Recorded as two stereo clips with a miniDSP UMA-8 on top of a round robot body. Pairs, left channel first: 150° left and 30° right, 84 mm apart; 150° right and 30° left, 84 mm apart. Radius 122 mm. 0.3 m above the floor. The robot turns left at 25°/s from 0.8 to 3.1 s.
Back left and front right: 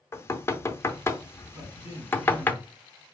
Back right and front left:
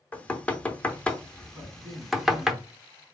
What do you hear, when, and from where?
0.1 s knocking: 155° left, 0.8 m; by 2.5 s 110° left, 0.8 m
1.5 s a man speaking: 65° right, 2.5 m; by 3.1 s 105° right, 2.5 m